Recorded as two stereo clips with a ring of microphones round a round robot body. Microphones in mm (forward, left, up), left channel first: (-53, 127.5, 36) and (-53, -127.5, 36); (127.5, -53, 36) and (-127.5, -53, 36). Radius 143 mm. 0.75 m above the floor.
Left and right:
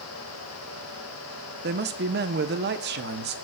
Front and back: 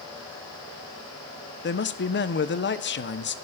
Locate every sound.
1.6 s a man speaking: 40° right, 1.1 m